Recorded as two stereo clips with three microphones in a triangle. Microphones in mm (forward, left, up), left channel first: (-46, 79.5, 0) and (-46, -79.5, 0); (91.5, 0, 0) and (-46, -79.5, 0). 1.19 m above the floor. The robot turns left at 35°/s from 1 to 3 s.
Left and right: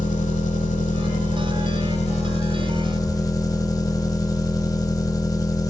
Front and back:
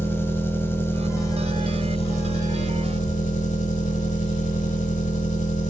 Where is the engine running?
100° left, 1.3 m; by 5.7 s 30° left, 1.3 m.